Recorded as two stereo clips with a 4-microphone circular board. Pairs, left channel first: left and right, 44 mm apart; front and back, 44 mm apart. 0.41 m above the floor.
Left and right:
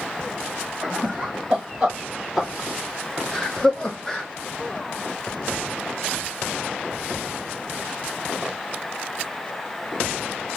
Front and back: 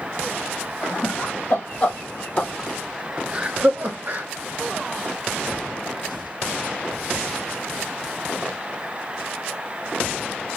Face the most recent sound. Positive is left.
turn(degrees=165)